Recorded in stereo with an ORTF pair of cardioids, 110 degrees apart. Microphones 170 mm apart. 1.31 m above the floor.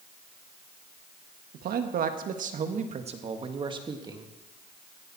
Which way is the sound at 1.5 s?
65° right.